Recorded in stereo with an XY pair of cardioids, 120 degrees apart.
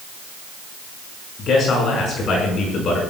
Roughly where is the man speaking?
Ahead left.